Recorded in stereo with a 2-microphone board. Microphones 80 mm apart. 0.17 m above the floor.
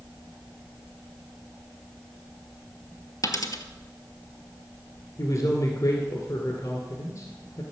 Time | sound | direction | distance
3.2 | a dropped coin | 55° left (ahead or behind) | 1.1 m
5.2 | a man speaking | 55° left (ahead or behind) | 1.8 m